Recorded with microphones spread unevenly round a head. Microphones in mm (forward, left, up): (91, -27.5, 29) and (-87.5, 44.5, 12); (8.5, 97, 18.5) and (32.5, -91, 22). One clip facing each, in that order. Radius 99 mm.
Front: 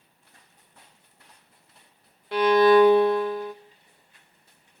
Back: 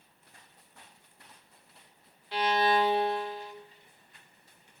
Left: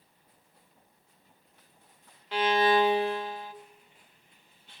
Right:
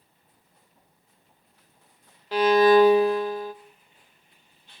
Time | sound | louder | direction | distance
2.3 | a violin | front 11 dB, right 8 dB | 45° right | 1.1 m